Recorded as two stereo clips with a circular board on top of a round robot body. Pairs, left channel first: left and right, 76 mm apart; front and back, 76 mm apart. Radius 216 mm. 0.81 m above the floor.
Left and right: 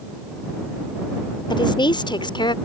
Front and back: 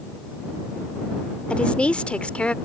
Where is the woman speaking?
75° left.